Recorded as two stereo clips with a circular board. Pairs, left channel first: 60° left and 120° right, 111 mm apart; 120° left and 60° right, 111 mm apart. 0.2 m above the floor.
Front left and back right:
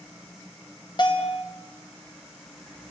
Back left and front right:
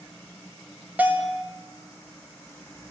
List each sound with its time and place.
1.0 s a bell: 15° left, 2.5 m